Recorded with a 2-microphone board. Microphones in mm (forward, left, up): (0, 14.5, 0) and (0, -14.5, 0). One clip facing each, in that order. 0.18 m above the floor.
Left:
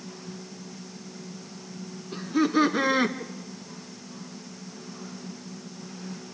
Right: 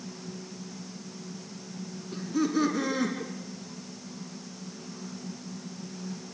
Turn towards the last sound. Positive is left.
turn(degrees=50)  # may be behind; listen again after turning